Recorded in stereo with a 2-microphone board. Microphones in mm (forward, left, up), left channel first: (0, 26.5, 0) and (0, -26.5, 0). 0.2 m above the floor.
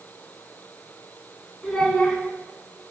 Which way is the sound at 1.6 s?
10° left (ahead or behind).